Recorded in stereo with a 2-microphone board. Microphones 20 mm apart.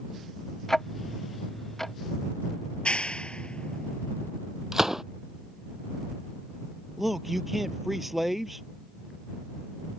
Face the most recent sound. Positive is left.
turn(degrees=-10)  # may be behind; listen again after turning